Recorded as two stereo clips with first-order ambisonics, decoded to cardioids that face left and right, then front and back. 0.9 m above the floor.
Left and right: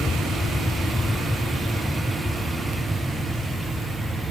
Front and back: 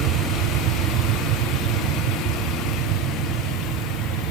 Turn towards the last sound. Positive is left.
turn(degrees=-165)